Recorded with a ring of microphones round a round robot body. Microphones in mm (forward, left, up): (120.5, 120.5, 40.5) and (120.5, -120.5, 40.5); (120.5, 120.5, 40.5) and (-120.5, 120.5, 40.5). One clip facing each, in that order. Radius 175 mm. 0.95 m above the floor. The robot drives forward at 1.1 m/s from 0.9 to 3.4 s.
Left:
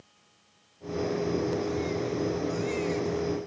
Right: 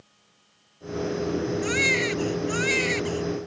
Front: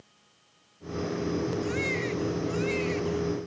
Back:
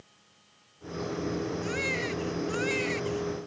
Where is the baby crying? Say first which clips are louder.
Right 3 dB, front 3 dB; 90° right; by 3.4 s 105° right.